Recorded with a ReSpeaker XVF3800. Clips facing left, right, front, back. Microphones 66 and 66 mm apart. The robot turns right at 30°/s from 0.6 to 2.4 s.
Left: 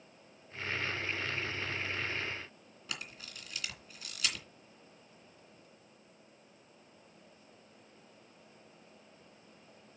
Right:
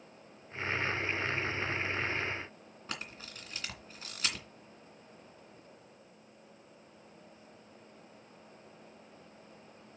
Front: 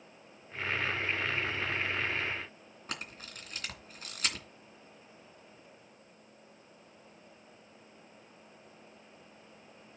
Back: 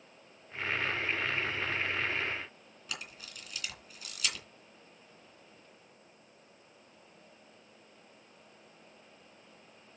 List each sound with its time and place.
2.9 s a camera shutter: 40° right, 2.5 m